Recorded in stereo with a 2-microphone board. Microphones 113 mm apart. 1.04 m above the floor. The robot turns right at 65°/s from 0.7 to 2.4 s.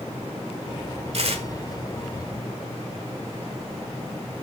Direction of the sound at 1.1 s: 60° right (ahead or behind).